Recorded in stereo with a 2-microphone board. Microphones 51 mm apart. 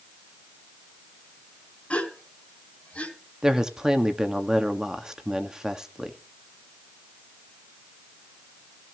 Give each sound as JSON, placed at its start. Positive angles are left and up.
{"t": 1.9, "sound": "a gasp", "side_deg": 25, "distance_m": 2.0}
{"t": 3.4, "sound": "a woman speaking", "side_deg": -15, "distance_m": 1.5}